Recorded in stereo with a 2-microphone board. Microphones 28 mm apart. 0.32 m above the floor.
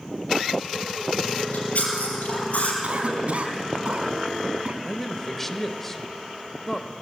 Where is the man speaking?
10° left (ahead or behind), 0.9 m.